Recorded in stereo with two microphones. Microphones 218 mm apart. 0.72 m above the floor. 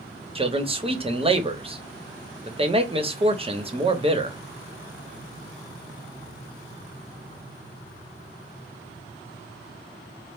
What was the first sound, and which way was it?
A man speaking, 25° right (ahead or behind).